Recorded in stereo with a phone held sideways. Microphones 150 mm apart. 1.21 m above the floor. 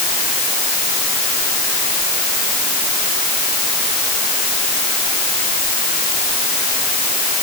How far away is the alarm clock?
No alarm clock in this recording.